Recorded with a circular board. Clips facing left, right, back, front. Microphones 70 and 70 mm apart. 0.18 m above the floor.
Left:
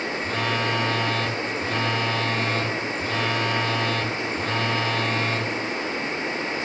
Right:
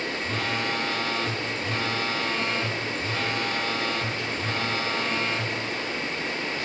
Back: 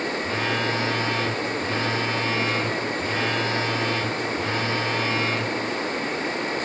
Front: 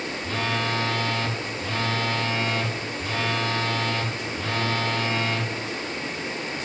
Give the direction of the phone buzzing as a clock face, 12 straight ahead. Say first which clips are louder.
Left 4 dB, front 1 dB; 8 o'clock.